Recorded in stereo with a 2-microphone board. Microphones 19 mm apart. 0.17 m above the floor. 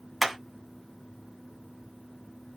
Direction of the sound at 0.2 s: 5° right (ahead or behind).